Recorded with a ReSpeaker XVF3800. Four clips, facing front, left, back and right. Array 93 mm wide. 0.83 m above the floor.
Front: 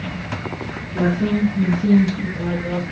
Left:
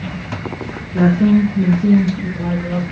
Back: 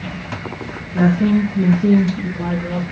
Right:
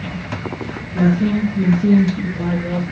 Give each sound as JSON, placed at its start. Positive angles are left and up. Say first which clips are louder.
{"t": 0.9, "sound": "a woman speaking", "louder": "left 4 dB, back 4 dB", "azimuth_deg": 100, "distance_m": 0.9}